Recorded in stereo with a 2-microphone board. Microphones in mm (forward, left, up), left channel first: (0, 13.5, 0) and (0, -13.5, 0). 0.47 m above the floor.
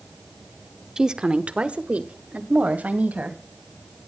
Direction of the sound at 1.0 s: 20° right (ahead or behind).